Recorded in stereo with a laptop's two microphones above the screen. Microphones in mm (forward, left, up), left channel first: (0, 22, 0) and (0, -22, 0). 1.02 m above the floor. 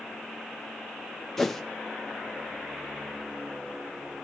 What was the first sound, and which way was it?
A whoosh, 10° left (ahead or behind).